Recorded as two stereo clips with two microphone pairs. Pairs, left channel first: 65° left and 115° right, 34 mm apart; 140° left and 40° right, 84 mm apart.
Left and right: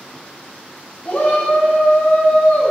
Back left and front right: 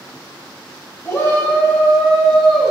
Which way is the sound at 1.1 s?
90° left.